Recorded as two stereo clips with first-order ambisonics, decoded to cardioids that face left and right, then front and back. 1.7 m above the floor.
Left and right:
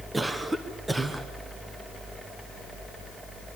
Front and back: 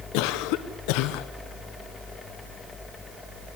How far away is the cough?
About 1.0 m.